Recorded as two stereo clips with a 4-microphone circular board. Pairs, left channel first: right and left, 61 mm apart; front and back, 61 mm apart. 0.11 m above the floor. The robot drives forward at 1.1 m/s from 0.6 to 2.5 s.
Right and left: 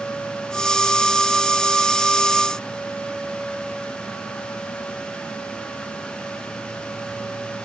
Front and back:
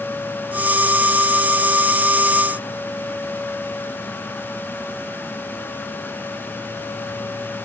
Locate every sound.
Only background noise.